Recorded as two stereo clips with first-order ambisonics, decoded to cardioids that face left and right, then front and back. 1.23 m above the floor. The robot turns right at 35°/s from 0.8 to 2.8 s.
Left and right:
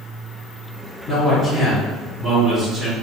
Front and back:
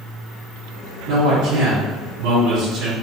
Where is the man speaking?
145° left, 1.5 m; by 2.9 s 155° right, 1.5 m.